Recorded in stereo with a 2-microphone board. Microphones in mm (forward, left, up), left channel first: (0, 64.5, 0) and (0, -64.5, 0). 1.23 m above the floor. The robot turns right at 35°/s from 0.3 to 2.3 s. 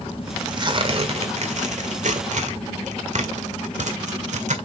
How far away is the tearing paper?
About 1.8 m.